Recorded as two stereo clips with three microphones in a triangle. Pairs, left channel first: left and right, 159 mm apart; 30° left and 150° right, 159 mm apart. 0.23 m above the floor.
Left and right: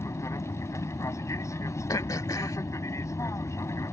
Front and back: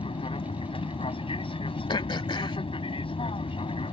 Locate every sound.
0.0 s an aircraft: 35° left
1.9 s throat clearing: 45° left